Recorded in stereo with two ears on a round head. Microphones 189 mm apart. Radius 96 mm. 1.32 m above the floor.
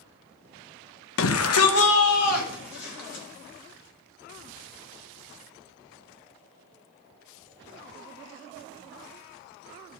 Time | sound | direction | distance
1.2 | a shout | 65° left (ahead or behind) | 0.9 m